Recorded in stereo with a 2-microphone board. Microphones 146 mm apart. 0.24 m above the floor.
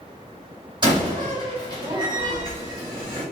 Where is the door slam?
30° right (ahead or behind), 1.3 m.